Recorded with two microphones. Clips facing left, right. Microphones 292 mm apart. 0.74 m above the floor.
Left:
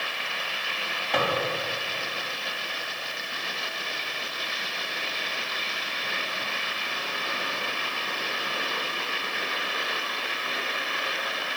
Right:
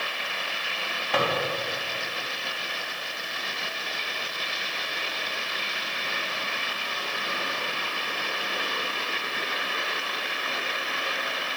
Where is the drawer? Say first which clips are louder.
Right 1 dB; 5° right (ahead or behind), 3 m.